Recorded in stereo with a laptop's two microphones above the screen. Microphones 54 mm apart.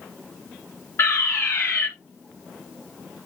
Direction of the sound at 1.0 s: 50° left (ahead or behind).